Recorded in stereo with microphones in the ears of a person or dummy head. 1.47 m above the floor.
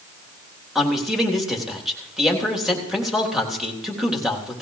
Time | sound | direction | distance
0.8 | a man speaking | centre (ahead or behind) | 3 m